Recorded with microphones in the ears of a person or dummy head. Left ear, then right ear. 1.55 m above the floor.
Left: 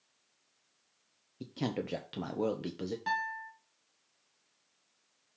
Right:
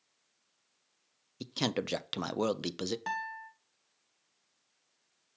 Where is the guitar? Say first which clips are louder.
Left 3 dB; 20° right (ahead or behind), 1.2 m.